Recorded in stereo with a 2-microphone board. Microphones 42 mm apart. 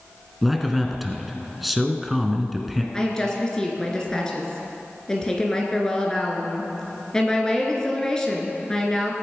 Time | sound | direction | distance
0.4 | a man speaking | centre (ahead or behind) | 1.5 m
2.9 | a woman speaking | 15° left (ahead or behind) | 2.5 m